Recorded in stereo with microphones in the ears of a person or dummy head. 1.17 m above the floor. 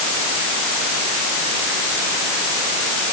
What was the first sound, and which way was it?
Only background noise.